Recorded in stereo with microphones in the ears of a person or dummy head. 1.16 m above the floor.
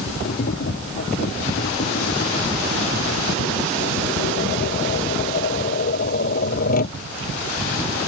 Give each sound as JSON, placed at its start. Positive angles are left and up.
{"t": 0.2, "sound": "tapping", "side_deg": 40}